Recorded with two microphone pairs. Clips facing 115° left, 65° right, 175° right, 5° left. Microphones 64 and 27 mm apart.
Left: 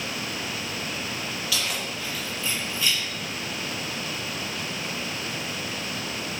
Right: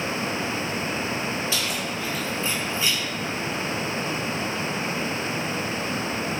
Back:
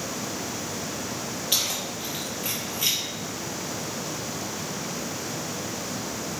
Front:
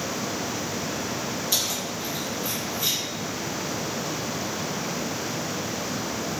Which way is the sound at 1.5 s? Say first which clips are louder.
Right 2 dB, back 2 dB; 125° right.